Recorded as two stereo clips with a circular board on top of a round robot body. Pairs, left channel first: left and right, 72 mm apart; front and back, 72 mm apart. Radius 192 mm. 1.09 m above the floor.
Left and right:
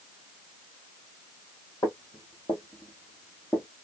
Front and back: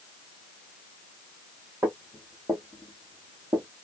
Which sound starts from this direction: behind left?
Footsteps, at 1.8 s.